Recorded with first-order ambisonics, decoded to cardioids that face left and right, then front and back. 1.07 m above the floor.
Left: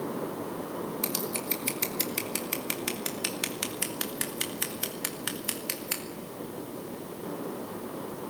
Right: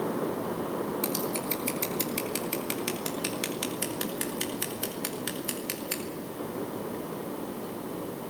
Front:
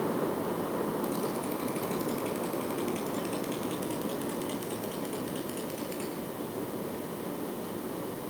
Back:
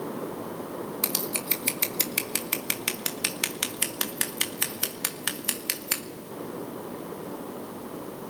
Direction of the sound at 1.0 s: 170° left.